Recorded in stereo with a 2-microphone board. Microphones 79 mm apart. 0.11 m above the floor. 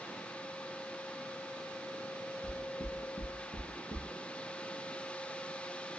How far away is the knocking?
About 1.0 m.